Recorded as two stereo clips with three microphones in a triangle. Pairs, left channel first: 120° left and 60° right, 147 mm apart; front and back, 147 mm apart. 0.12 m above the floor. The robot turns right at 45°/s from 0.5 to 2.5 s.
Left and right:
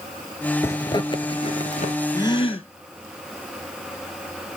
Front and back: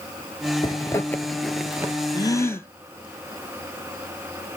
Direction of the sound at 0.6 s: 50° left.